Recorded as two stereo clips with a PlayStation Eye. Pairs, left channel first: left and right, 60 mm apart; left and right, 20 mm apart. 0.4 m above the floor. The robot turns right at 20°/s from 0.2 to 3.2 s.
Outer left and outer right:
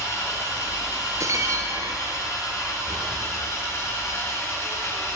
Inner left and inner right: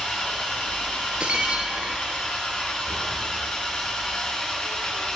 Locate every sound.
0.0 s an engine running: 65° left, 3.5 m; by 5.2 s 125° left, 3.5 m
1.2 s breaking glass: 55° right (ahead or behind), 1.5 m; by 2.2 s 75° right (ahead or behind), 1.5 m